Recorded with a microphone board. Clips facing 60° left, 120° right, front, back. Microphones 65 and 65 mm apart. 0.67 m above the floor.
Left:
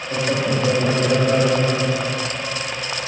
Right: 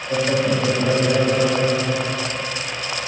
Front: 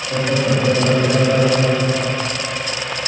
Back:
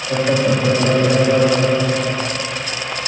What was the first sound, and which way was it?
Laughter, 175° left.